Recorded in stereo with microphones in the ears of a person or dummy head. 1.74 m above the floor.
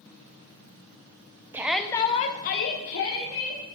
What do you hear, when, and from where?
1.5 s a shout: 15° right (ahead or behind), 0.9 m; by 3.6 s 70° left (ahead or behind), 1.9 m